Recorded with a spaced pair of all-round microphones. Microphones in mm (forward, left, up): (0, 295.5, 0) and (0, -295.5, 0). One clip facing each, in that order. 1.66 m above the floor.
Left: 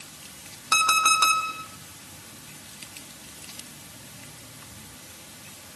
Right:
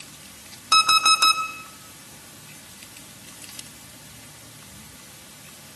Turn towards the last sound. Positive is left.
turn(degrees=0)  # may be behind; listen again after turning